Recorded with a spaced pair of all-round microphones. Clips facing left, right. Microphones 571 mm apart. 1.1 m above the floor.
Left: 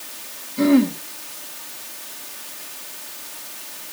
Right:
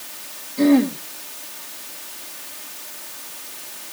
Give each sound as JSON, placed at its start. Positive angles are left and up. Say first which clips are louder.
{"t": 0.6, "sound": "throat clearing", "louder": "even", "side_deg": 35, "distance_m": 2.5}